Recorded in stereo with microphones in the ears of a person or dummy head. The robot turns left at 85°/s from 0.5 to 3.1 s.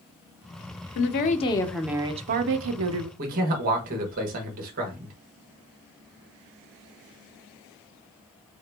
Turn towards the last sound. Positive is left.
turn(degrees=-45)  # may be behind; listen again after turning